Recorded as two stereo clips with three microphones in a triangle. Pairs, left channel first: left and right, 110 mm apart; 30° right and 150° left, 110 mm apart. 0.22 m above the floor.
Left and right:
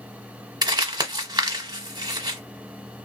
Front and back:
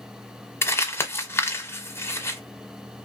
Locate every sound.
0.6 s crumpling: 85° right, 1.0 m